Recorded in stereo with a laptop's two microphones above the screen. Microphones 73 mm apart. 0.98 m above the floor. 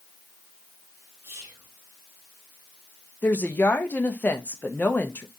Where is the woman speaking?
25° left (ahead or behind), 0.5 m.